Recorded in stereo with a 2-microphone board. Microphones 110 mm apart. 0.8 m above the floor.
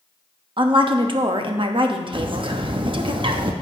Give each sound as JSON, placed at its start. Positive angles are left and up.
{"t": 0.6, "sound": "a woman speaking", "side_deg": -50, "distance_m": 0.9}
{"t": 2.1, "sound": "a bird", "side_deg": -50, "distance_m": 0.7}